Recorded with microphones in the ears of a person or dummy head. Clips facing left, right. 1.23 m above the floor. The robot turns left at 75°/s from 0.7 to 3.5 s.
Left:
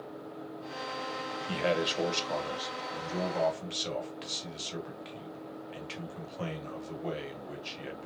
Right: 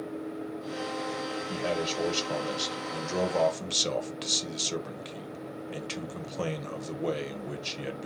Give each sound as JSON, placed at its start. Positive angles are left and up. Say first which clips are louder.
{"t": 1.5, "sound": "a man speaking", "louder": "left 2 dB", "azimuth_deg": 45, "distance_m": 0.6}